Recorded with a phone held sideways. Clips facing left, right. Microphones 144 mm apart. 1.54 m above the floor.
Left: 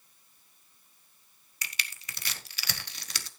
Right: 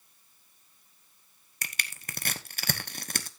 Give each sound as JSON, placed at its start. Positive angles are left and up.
{"t": 1.6, "sound": "crushing", "side_deg": -50, "distance_m": 1.0}